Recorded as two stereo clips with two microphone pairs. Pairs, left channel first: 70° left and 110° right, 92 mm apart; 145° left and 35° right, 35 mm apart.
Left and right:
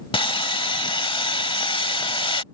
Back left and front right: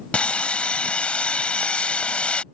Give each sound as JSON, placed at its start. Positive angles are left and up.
{"t": 0.1, "sound": "sawing", "azimuth_deg": 90}